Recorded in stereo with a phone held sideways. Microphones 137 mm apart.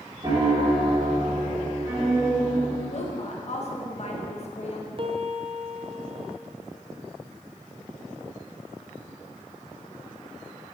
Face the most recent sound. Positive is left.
turn(degrees=-40)  # may be behind; listen again after turning